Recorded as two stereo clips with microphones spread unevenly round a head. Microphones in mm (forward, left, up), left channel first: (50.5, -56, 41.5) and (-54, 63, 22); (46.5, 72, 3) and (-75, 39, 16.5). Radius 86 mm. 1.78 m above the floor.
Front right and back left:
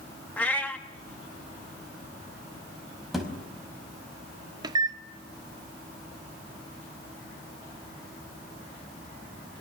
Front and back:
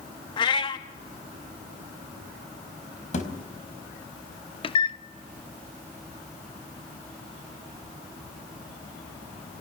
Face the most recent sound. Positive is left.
turn(degrees=65)